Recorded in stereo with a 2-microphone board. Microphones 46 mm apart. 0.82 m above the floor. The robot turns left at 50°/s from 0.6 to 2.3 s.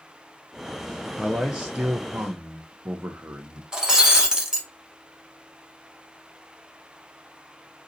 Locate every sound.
1.2 s a man speaking: 5° right, 0.7 m; by 3.6 s 60° right, 0.7 m
3.7 s breaking glass: 15° right (ahead or behind), 0.8 m